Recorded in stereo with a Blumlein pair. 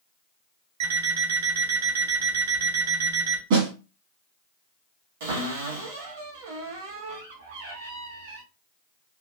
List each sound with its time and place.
0.8 s an alarm clock: 60° right, 1.8 m
3.5 s a snare drum: 50° right, 1.7 m
5.2 s a cupboard door: 55° right, 1.6 m